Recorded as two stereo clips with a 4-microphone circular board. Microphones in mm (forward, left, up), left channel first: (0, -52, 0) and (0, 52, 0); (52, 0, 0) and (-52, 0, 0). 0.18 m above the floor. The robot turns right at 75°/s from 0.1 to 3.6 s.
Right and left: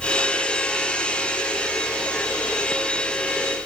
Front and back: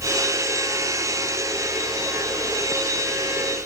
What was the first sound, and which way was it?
Only background noise.